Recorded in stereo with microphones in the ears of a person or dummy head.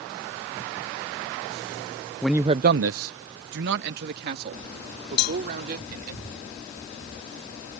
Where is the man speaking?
5° left (ahead or behind); by 6.2 s 55° right (ahead or behind).